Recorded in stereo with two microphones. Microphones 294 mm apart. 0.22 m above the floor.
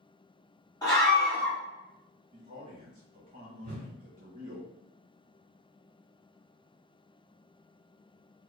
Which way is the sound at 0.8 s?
10° left (ahead or behind).